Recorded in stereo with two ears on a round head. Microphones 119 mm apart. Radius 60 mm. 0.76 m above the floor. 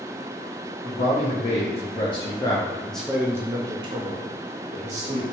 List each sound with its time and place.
0.8 s a man speaking: 55° left (ahead or behind), 1.2 m; by 5.2 s 55° right (ahead or behind), 1.2 m